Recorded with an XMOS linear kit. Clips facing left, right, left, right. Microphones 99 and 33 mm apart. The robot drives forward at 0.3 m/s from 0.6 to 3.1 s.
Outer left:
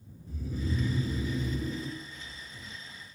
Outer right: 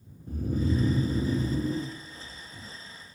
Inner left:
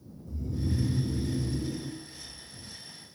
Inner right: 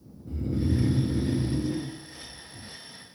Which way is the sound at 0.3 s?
50° right (ahead or behind).